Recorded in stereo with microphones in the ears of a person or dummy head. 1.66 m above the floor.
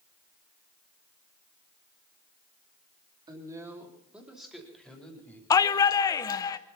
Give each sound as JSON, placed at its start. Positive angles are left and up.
{"t": 3.3, "sound": "a woman speaking", "side_deg": -20, "distance_m": 3.5}
{"t": 5.5, "sound": "a shout", "side_deg": 25, "distance_m": 0.8}